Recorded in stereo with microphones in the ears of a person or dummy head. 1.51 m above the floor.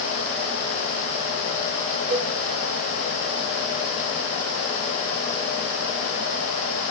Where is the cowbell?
55° right (ahead or behind), 5 m.